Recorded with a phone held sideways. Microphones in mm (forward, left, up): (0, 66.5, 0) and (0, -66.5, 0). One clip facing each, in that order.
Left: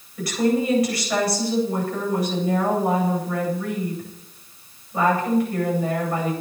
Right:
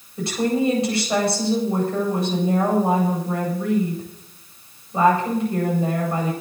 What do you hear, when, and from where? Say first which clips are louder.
0.2 s a woman speaking: even; 25° right (ahead or behind), 9 m